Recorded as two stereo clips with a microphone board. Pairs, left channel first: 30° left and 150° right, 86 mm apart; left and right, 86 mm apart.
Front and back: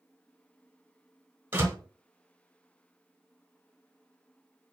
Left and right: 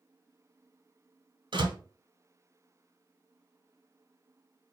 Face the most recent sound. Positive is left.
turn(degrees=-85)